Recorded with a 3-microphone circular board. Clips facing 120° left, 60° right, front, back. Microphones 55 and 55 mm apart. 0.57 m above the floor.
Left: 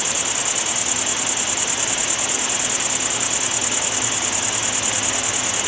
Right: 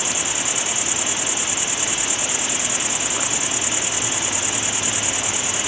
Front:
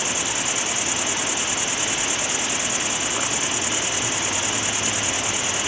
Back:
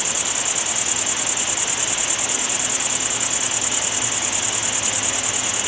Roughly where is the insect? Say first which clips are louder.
Even, front 1 dB; ahead.